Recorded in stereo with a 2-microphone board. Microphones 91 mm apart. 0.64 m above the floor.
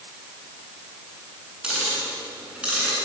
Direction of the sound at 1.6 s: 10° right (ahead or behind).